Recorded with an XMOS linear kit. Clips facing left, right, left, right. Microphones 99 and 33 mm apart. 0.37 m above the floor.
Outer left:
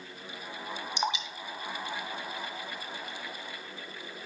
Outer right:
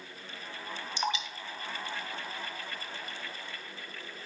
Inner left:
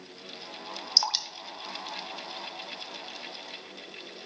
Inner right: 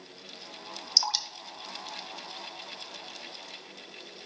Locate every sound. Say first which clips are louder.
1.0 s dripping: even, inner left 1 dB; 20° left (ahead or behind), 0.7 m